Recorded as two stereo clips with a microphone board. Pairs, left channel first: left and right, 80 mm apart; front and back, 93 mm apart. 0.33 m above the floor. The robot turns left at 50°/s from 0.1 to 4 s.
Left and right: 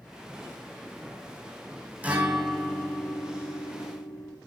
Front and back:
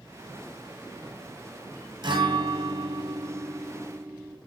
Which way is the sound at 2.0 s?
160° right.